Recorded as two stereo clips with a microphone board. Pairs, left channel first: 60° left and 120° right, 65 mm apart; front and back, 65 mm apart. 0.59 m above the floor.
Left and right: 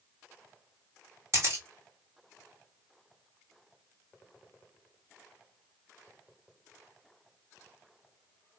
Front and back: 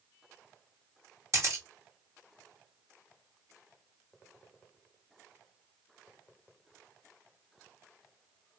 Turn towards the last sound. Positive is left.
turn(degrees=-150)